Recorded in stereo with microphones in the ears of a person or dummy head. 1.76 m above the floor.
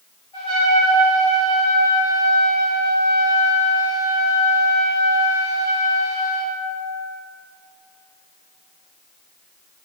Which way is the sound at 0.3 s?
25° left (ahead or behind).